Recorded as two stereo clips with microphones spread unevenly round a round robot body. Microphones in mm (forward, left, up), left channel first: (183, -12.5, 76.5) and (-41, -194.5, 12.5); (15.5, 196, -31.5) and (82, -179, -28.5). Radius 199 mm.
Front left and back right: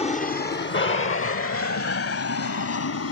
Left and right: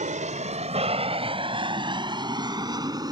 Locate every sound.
0.0 s an aircraft: 30° right; by 3.1 s straight ahead